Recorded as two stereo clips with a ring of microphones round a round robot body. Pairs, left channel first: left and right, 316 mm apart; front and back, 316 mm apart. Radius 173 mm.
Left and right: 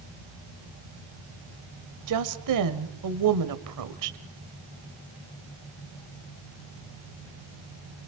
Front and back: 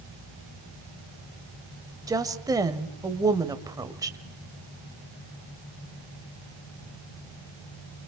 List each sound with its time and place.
2.1 s a woman speaking: 100° right, 1.8 m